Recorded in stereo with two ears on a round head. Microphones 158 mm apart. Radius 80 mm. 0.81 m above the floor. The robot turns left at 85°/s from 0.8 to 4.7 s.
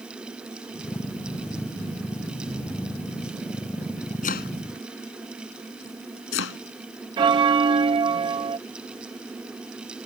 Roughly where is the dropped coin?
No dropped coin in this recording.